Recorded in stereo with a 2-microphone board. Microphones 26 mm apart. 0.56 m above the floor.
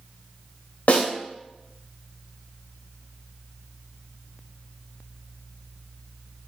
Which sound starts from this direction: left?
A snare drum, at 0.9 s.